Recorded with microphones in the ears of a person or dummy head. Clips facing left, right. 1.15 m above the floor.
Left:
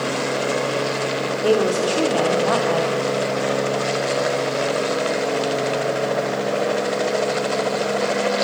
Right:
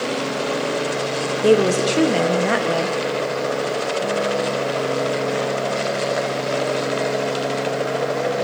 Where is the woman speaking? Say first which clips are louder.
Right 3 dB; 25° right (ahead or behind), 0.6 m.